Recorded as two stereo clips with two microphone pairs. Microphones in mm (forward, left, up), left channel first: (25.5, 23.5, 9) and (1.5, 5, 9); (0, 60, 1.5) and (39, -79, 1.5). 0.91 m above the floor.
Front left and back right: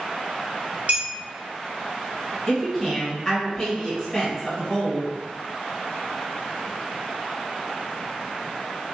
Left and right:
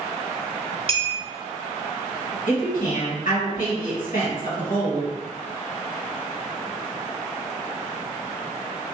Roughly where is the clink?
Behind right.